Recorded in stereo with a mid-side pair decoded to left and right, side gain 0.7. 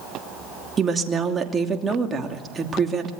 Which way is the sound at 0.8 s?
25° right.